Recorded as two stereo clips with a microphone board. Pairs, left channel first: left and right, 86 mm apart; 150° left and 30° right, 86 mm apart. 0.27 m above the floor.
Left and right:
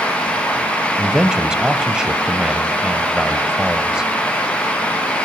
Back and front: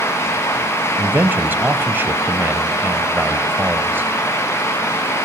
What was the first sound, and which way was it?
A man speaking, 25° right.